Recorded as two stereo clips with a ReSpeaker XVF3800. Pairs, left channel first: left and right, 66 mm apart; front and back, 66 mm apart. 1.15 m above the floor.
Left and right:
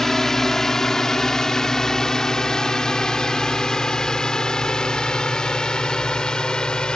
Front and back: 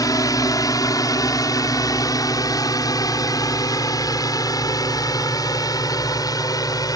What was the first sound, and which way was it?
A drone, 5° left.